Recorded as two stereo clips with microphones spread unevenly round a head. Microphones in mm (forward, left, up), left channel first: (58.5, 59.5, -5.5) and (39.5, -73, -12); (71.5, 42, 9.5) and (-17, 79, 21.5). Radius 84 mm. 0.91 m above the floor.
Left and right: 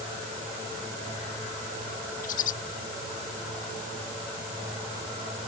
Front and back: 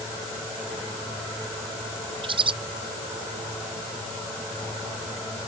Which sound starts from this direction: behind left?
A bird, at 2.2 s.